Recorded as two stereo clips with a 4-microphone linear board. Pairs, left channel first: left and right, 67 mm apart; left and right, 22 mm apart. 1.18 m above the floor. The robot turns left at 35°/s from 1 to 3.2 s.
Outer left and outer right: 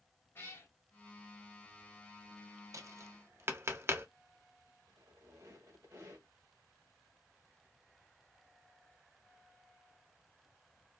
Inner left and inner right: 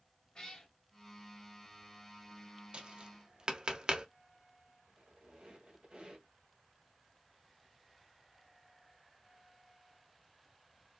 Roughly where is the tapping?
Right.